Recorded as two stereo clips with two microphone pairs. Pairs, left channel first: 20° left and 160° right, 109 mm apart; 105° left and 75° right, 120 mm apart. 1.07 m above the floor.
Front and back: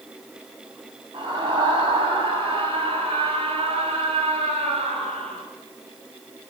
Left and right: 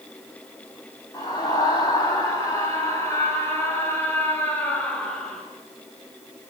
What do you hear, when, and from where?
1.1 s a scream: 160° left, 9.5 m; by 5.4 s 175° right, 7 m